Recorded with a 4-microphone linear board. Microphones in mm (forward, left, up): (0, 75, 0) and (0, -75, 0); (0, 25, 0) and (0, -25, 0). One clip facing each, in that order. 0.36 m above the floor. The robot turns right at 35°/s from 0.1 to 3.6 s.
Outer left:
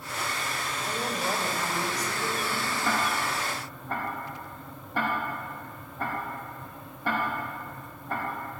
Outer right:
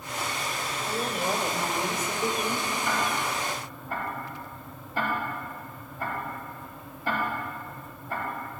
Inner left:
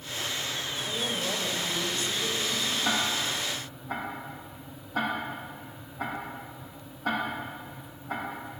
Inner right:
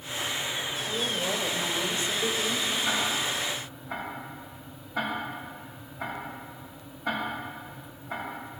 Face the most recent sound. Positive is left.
turn(degrees=65)  # may be behind; listen again after turning